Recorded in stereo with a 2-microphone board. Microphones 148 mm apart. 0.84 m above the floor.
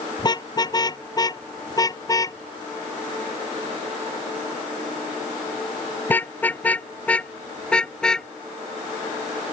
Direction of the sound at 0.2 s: 30° left (ahead or behind).